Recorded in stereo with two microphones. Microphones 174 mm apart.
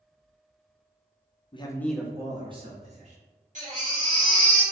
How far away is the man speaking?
About 0.5 m.